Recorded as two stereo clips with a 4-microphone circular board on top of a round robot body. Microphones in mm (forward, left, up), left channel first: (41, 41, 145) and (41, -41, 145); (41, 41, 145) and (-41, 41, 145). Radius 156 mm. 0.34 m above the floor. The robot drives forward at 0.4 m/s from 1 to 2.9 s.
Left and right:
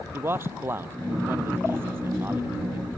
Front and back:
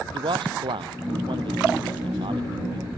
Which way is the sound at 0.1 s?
155° right.